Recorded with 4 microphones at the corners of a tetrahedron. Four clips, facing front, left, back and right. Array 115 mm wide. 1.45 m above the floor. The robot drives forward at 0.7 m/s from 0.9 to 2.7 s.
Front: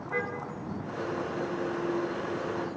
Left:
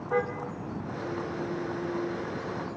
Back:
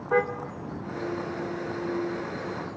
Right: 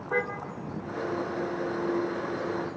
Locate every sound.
0.1 s a car horn: 165° right, 2.5 m; by 2.8 s 170° right, 3.5 m